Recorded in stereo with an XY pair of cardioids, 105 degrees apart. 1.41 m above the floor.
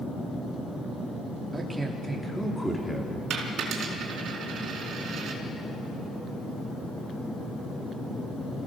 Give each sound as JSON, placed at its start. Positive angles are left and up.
{"t": 1.5, "sound": "a man speaking", "azimuth_deg": -10, "distance_m": 4.0}
{"t": 3.3, "sound": "a dropped coin", "azimuth_deg": -65, "distance_m": 4.0}